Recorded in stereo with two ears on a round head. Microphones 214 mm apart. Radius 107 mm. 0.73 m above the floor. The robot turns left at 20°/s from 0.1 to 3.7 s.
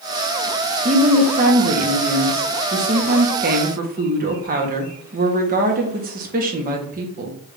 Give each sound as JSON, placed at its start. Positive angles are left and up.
{"t": 0.8, "sound": "a woman speaking", "azimuth_deg": -50, "distance_m": 1.0}